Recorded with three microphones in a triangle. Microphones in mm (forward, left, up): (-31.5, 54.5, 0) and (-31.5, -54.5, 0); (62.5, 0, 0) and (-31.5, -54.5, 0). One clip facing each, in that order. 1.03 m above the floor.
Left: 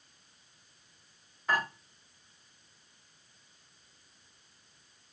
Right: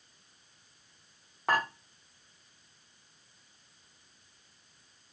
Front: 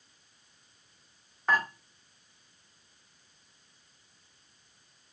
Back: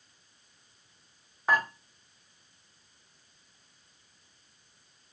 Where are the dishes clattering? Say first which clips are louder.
Right 2 dB, back 1 dB; 70° right, 2 m.